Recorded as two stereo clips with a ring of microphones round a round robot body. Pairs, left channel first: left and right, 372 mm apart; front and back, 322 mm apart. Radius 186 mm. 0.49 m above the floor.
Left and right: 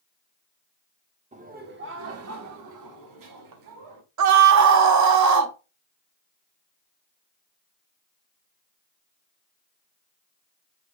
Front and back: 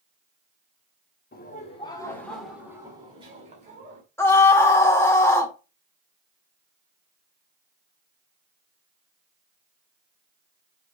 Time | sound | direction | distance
1.3 | laughter | 35° right | 1.2 m
4.2 | a scream | 80° right | 1.1 m